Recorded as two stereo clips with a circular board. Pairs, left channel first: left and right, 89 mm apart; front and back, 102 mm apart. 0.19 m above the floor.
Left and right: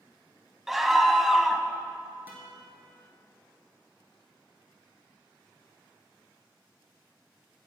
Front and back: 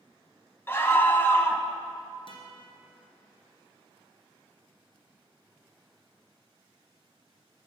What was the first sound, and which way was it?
A scream, 10° right.